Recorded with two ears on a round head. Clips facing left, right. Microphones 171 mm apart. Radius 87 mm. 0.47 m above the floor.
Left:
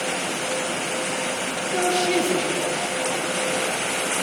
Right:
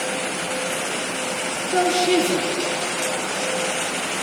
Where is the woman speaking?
50° right (ahead or behind), 7 m.